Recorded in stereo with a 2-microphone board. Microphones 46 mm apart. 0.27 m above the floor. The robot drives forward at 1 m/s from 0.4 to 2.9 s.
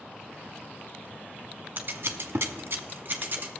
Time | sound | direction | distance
1.8 | scissors | 50° right (ahead or behind) | 1.0 m